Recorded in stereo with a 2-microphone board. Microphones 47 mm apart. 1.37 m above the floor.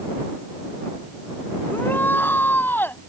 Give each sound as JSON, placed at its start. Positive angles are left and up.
{"t": 1.7, "sound": "a shout", "side_deg": 45}